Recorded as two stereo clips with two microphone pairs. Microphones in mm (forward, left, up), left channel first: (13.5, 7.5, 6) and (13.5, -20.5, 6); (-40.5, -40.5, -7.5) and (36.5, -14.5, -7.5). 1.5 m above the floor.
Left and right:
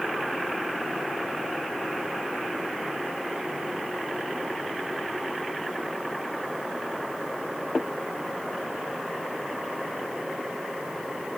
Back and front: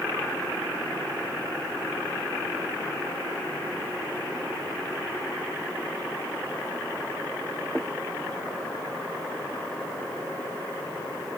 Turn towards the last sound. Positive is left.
No sound to turn to.